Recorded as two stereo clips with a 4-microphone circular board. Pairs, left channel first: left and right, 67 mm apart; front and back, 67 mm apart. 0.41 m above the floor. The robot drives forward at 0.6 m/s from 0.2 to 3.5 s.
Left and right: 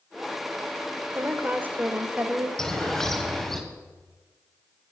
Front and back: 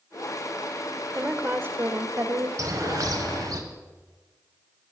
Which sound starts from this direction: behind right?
A woman speaking, at 1.1 s.